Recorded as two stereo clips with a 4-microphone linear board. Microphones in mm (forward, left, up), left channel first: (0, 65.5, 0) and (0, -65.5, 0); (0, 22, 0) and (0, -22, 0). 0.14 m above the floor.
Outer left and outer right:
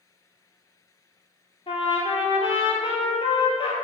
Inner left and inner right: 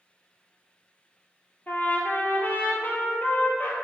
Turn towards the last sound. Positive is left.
turn(degrees=40)  # may be behind; listen again after turning